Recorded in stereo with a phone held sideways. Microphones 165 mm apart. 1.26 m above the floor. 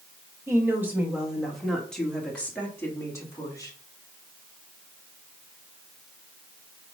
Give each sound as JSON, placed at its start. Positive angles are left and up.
{"t": 0.5, "sound": "a woman speaking", "side_deg": -15, "distance_m": 2.5}